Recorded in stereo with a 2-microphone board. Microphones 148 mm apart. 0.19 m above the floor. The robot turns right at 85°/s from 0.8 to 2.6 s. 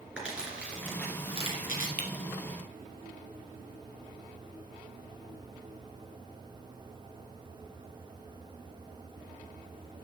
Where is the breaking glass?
75° left (ahead or behind), 1.7 m; by 2.1 s 70° left (ahead or behind), 1.7 m.